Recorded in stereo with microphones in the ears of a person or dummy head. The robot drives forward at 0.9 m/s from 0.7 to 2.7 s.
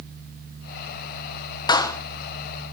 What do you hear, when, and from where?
1.7 s a clap: 20° left (ahead or behind), 1.1 m